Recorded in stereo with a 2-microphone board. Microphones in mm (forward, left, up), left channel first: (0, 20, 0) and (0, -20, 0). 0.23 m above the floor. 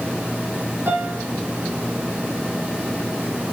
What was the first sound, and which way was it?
A piano, 80° right.